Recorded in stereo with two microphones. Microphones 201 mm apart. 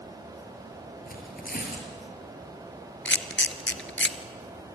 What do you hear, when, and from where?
1.1 s tearing paper: 45° left (ahead or behind), 4.5 m
3.0 s a camera shutter: 70° left (ahead or behind), 1.3 m